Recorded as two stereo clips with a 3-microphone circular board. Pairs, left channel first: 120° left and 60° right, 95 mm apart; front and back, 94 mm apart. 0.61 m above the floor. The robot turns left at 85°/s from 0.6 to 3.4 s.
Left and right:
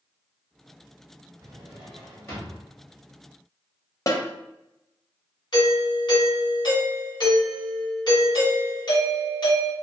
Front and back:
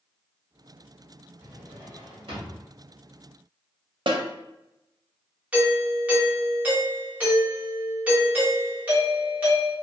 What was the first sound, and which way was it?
A drawer, 105° right.